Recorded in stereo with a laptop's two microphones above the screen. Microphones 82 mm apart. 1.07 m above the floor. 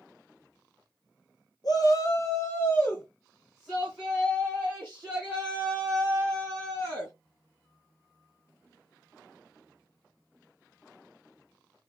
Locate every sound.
1.6 s a shout: 50° left (ahead or behind), 0.9 m; by 7.1 s 30° right (ahead or behind), 3 m